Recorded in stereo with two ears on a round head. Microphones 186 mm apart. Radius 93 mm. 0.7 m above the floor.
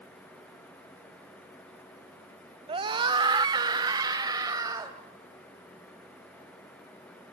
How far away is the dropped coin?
No dropped coin in this recording.